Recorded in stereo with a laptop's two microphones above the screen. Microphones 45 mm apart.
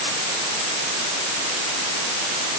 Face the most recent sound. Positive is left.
No sound to turn to.